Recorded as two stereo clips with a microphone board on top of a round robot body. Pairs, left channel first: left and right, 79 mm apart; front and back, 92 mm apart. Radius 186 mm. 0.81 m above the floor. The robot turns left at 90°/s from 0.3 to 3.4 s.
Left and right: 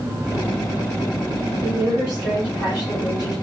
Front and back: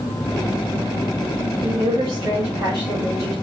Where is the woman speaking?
125° right, 2 m; by 3.4 s 80° left, 2 m.